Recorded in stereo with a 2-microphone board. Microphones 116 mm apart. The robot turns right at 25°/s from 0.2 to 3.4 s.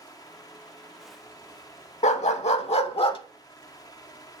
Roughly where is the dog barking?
Left.